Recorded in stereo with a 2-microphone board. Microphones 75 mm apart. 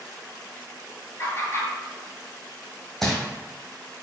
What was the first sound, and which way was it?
Laughter, 35° left (ahead or behind).